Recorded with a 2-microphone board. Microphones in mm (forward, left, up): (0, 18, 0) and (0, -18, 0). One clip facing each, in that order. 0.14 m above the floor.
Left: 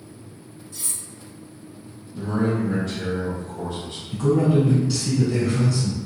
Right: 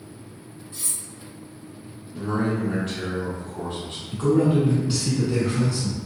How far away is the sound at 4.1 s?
About 1.3 m.